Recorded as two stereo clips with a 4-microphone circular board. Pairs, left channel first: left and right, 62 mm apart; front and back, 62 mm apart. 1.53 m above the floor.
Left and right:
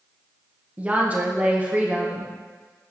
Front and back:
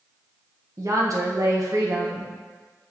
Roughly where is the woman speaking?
Behind right.